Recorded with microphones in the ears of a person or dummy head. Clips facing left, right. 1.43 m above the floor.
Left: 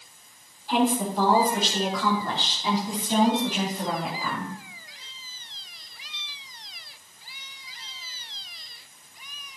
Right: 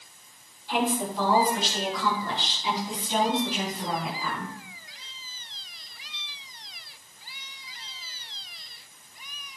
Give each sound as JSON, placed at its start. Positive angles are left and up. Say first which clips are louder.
{"t": 0.7, "sound": "a woman speaking", "louder": "left 4 dB", "side_deg": 45, "distance_m": 5.5}